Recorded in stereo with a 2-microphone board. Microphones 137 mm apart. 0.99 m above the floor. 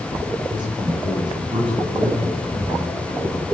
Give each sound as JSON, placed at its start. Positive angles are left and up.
{"t": 0.5, "sound": "a man speaking", "side_deg": -40, "distance_m": 7.5}